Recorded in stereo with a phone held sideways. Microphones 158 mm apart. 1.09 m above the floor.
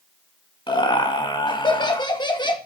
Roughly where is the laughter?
Left.